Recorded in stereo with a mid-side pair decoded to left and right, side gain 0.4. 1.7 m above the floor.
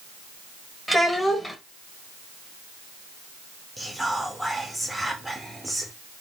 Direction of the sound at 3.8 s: 10° right.